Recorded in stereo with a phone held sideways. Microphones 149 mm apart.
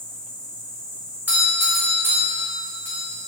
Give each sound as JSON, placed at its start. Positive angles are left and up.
{"t": 0.0, "sound": "an insect", "side_deg": 25, "distance_m": 1.8}
{"t": 1.3, "sound": "a doorbell", "side_deg": -15, "distance_m": 1.5}